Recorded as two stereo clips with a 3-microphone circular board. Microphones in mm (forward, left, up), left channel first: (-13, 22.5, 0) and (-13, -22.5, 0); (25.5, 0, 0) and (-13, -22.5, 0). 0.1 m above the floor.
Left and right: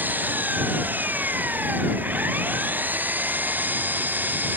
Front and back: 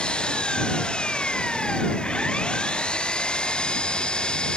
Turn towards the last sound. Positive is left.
turn(degrees=-35)